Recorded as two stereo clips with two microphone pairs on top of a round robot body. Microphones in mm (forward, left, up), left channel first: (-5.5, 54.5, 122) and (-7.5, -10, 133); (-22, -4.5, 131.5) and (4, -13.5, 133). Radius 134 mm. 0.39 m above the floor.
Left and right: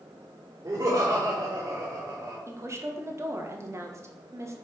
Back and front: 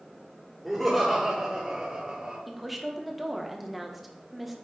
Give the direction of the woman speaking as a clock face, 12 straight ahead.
3 o'clock.